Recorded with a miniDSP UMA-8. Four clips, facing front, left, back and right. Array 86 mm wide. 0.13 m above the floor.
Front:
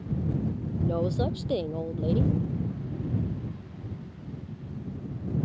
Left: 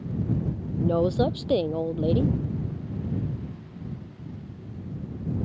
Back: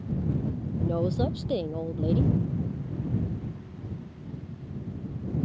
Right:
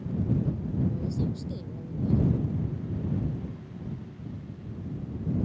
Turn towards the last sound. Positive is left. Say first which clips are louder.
# left 10 dB, back 1 dB
turn(degrees=90)